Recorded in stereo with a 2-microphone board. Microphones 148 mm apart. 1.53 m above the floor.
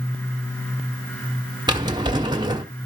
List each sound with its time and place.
1.7 s a drawer: 30° right (ahead or behind), 1.4 m